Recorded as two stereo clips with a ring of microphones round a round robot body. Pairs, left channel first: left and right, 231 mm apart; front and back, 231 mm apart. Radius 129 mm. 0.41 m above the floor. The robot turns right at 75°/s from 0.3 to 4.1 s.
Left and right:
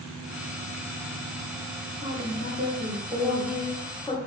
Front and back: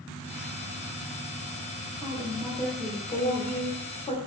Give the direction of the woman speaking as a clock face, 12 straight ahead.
4 o'clock.